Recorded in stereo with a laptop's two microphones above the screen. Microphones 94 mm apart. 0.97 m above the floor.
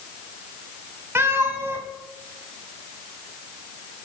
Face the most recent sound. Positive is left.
turn(degrees=-25)  # may be behind; listen again after turning